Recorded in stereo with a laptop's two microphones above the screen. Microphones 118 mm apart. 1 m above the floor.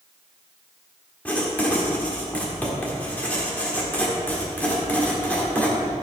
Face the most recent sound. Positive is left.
turn(degrees=10)  # may be behind; listen again after turning